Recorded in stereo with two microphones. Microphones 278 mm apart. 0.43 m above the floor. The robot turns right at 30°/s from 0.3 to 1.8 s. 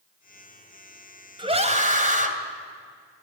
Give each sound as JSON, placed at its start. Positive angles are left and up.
{"t": 1.4, "sound": "a scream", "side_deg": -20, "distance_m": 2.5}